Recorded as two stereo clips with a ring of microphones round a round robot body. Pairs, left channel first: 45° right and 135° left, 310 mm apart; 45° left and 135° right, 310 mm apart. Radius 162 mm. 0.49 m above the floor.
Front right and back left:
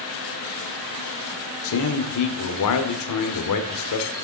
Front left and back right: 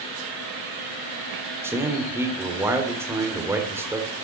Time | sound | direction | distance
1.6 | a man speaking | 55° right | 1.6 m